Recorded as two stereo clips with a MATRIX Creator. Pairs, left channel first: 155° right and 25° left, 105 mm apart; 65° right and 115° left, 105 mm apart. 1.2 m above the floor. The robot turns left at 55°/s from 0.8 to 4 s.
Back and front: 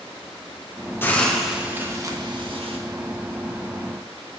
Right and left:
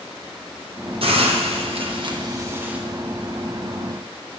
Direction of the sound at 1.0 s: 135° left.